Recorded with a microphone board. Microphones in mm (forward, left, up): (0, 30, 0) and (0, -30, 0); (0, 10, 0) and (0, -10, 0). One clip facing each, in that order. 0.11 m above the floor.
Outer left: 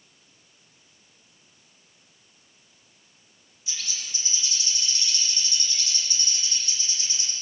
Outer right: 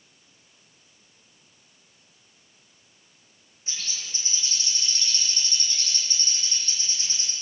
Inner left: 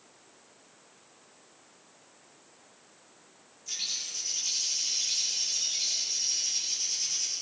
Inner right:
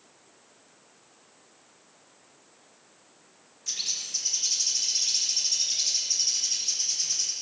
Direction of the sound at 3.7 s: 40° right (ahead or behind).